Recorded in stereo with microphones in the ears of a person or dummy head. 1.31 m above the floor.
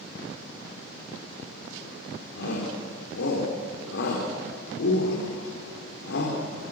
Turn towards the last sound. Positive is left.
turn(degrees=65)  # may be behind; listen again after turning